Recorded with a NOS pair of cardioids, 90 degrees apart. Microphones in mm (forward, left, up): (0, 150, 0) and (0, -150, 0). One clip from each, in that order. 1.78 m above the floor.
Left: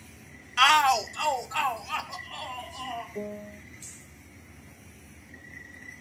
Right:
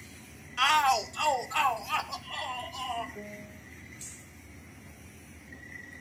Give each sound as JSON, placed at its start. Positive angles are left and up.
{"t": 0.6, "sound": "a shout", "azimuth_deg": 35, "distance_m": 0.6}
{"t": 3.1, "sound": "a piano", "azimuth_deg": 50, "distance_m": 1.3}